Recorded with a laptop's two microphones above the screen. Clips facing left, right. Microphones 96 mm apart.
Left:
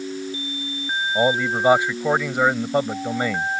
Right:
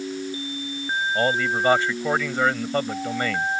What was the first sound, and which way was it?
A man speaking, 15° left (ahead or behind).